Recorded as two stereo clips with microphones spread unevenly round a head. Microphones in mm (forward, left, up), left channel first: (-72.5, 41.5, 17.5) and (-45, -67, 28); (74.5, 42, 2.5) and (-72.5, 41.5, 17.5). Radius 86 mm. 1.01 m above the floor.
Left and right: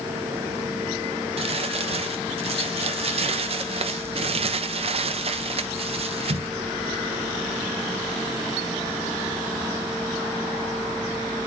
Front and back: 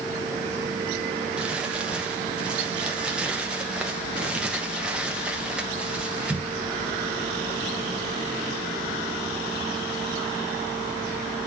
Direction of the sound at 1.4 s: 95° right.